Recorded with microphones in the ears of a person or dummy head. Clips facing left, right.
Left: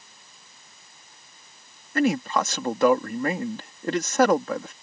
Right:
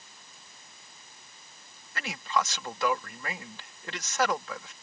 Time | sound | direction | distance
1.9 | a man speaking | 50° left (ahead or behind) | ?